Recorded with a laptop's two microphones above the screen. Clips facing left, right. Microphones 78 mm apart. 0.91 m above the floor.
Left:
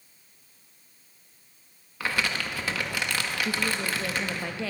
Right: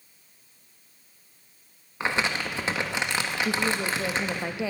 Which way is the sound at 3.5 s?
15° right (ahead or behind).